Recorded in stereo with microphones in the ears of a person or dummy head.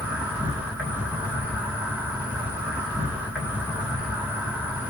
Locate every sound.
0.0 s an insect: 5° right (ahead or behind), 1.6 m